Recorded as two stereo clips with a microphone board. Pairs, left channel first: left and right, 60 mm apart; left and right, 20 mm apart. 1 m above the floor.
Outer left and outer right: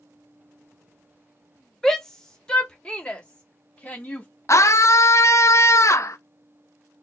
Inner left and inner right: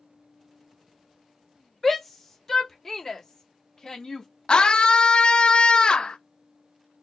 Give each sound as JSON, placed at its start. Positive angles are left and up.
{"t": 1.8, "sound": "a shout", "side_deg": 10, "distance_m": 1.5}
{"t": 4.5, "sound": "a scream", "side_deg": 50, "distance_m": 0.7}